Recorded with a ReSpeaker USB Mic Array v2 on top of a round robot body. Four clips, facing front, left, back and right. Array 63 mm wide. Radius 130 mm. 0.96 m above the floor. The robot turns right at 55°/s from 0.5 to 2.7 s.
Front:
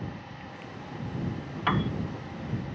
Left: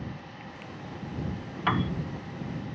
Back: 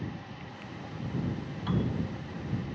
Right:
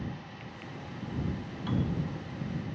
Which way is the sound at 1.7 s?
50° left.